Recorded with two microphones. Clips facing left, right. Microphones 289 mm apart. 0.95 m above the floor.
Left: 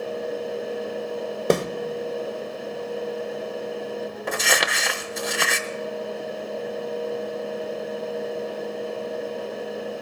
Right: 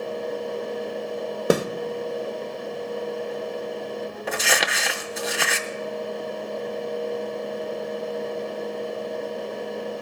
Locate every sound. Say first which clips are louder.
1.5 s a snare drum: even; 10° right (ahead or behind), 0.6 m
4.3 s crumpling: even; centre (ahead or behind), 0.5 m